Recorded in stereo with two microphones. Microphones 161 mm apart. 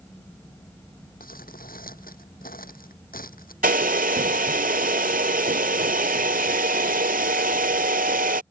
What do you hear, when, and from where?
1.2 s crumpling: 65° left (ahead or behind)
3.6 s a hair dryer: 65° right (ahead or behind)